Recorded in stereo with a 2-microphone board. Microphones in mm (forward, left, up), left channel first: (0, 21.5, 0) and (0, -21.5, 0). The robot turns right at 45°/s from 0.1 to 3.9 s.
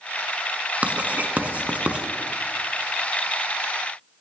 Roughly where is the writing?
Right.